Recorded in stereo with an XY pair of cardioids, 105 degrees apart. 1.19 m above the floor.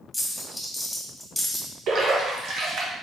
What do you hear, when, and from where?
0.1 s a dropped coin: 5° left, 1.6 m
1.9 s a splash: 65° right, 1.3 m